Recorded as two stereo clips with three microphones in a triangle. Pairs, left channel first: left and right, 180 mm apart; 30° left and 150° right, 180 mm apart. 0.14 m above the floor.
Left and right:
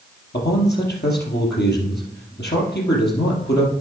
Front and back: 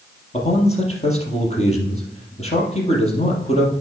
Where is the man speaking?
80° left, 3.5 m.